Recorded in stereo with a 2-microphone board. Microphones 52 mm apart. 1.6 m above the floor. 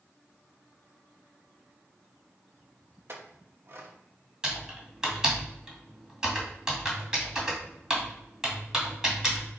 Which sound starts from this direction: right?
A clink, at 3.1 s.